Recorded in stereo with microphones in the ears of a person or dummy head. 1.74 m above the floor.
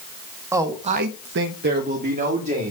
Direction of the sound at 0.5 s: 10° right (ahead or behind).